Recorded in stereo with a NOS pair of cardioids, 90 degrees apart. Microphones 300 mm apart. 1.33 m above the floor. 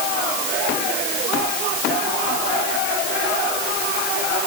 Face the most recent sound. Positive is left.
No sound to turn to.